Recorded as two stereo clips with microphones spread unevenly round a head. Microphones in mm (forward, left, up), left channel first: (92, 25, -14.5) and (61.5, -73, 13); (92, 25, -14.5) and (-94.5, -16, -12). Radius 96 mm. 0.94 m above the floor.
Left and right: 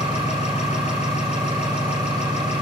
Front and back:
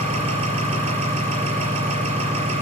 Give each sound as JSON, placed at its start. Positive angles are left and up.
{"t": 0.0, "sound": "an engine running", "azimuth_deg": 135, "distance_m": 5.0}